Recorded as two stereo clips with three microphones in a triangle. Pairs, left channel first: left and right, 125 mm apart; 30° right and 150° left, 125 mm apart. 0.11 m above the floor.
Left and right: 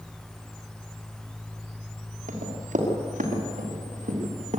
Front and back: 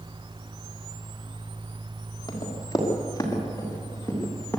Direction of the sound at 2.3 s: 90° right.